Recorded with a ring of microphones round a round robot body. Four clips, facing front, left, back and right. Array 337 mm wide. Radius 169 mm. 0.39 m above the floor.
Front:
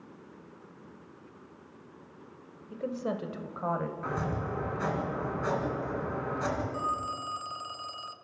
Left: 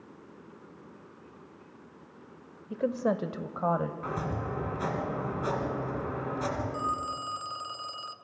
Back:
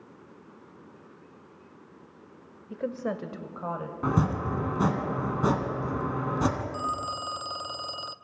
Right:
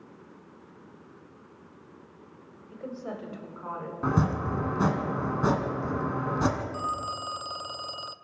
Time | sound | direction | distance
2.7 | a woman speaking | 120° left | 1.2 m
4.0 | chopping | 140° right | 2.5 m
6.7 | a phone ringing | 150° right | 0.5 m